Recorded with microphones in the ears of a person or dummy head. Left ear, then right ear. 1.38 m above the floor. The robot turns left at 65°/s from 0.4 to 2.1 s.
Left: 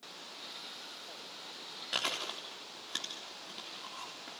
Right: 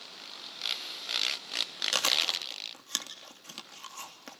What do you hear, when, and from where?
1.9 s chewing: 80° right, 3 m